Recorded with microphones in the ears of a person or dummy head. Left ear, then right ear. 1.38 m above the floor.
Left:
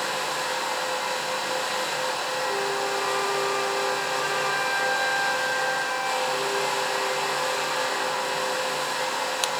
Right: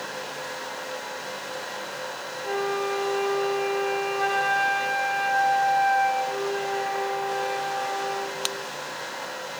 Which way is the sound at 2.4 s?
30° right (ahead or behind).